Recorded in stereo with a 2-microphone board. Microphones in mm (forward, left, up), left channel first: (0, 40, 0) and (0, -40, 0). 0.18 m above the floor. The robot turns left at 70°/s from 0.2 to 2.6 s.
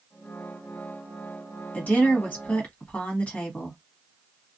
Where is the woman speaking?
20° left (ahead or behind), 1.3 m.